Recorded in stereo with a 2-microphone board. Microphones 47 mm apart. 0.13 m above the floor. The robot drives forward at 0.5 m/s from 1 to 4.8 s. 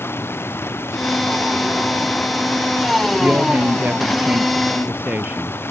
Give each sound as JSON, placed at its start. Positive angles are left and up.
{"t": 0.0, "sound": "running water", "side_deg": 60}
{"t": 3.2, "sound": "a woman speaking", "side_deg": -45}